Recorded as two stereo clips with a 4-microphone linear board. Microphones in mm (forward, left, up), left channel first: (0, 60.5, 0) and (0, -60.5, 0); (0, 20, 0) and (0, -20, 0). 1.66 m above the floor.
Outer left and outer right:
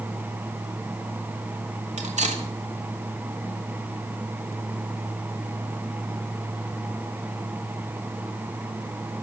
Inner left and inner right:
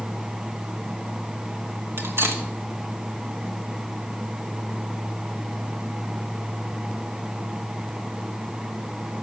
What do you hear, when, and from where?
2.0 s cutlery clinking: 75° right (ahead or behind), 2.5 m